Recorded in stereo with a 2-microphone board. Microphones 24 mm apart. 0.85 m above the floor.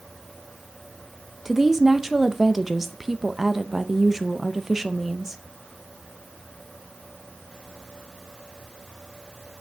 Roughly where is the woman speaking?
Centre.